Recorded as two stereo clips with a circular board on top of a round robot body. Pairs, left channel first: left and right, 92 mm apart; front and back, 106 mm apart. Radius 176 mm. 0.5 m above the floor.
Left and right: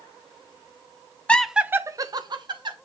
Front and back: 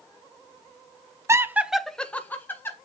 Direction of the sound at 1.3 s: 155° left.